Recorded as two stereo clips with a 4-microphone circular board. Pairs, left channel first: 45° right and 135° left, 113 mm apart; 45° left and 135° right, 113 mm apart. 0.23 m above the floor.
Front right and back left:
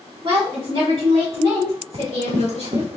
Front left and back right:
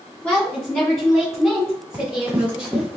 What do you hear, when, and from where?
0.2 s a woman speaking: 120° left, 1.8 m; by 2.9 s 145° left, 3 m
1.9 s running footsteps: 150° left, 2.5 m; by 3.0 s 140° left, 1.5 m